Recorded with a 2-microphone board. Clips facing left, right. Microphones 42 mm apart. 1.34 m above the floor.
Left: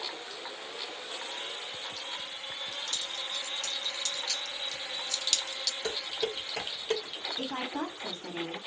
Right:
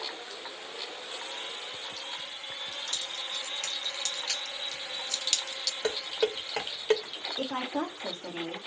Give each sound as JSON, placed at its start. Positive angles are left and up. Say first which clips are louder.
{"t": 2.9, "sound": "keys jangling", "louder": "even", "side_deg": -70, "distance_m": 2.0}
{"t": 5.8, "sound": "dishes clattering", "louder": "right 6 dB", "side_deg": -65, "distance_m": 1.6}
{"t": 7.4, "sound": "a woman speaking", "louder": "right 3 dB", "side_deg": -75, "distance_m": 2.5}